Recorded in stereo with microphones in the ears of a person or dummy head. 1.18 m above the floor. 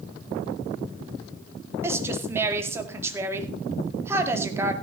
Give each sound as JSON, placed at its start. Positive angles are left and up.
{"t": 1.8, "sound": "a woman speaking", "side_deg": -15, "distance_m": 2.0}